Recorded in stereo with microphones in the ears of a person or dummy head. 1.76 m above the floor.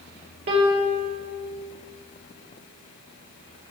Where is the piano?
45° right (ahead or behind), 1.0 m.